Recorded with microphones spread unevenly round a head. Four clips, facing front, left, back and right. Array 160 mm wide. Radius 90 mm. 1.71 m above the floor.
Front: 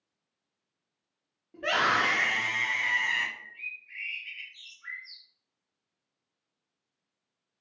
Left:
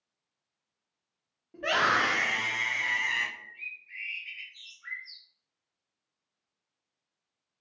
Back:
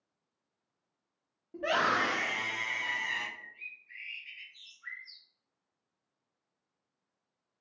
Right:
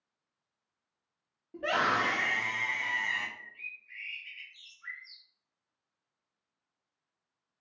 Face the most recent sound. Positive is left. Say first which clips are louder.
# left 2 dB, front 5 dB
turn(degrees=-120)